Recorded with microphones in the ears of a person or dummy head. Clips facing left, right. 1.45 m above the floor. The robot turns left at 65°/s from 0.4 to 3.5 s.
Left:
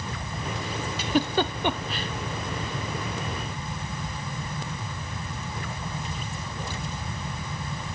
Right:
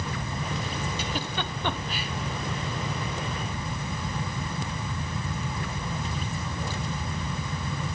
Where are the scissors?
I don't hear scissors.